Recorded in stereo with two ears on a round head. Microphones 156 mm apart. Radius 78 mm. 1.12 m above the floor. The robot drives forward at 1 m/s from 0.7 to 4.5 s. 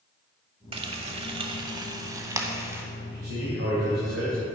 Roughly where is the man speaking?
Right.